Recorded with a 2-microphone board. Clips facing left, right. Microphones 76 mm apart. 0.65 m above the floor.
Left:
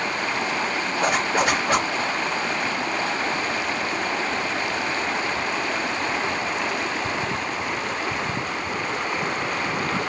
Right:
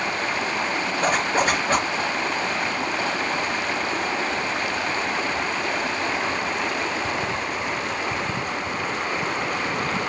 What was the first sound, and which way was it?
A zipper, 10° left (ahead or behind).